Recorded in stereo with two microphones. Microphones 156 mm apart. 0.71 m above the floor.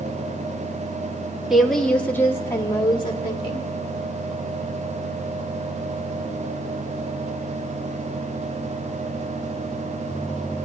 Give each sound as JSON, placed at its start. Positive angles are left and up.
{"t": 1.5, "sound": "a woman speaking", "side_deg": 0, "distance_m": 1.5}